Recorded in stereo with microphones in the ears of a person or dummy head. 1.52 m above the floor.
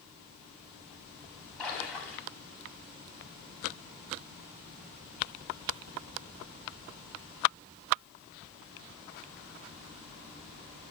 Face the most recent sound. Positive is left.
turn(degrees=5)  # may be behind; listen again after turning